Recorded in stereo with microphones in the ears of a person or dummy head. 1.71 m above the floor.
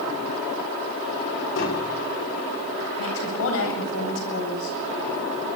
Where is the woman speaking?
85° left, 8.5 m.